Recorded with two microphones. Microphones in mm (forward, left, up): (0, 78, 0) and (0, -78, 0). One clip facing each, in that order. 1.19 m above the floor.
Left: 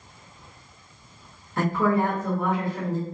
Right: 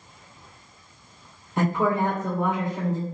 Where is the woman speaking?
20° right (ahead or behind), 0.9 m.